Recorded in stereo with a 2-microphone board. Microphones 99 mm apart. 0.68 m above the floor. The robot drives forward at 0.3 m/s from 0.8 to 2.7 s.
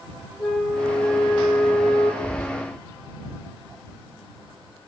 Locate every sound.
0.4 s a flute: 5° left (ahead or behind), 1.5 m
2.2 s whispering: 25° left (ahead or behind), 1.2 m